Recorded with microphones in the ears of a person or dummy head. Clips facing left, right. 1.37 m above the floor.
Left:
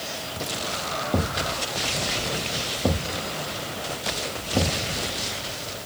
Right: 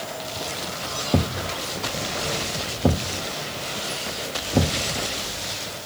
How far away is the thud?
About 1.0 m.